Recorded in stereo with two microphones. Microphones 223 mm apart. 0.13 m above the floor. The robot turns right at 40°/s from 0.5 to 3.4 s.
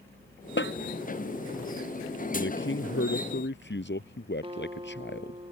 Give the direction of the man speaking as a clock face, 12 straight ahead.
10 o'clock.